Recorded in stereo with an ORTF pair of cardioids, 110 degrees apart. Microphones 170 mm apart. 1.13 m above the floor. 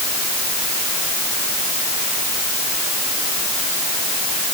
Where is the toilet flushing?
I don't hear a toilet flushing.